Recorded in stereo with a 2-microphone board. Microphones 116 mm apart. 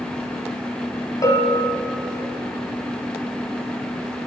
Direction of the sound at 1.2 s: 30° left (ahead or behind).